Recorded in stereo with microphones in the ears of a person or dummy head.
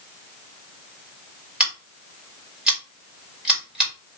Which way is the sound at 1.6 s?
Centre (ahead or behind).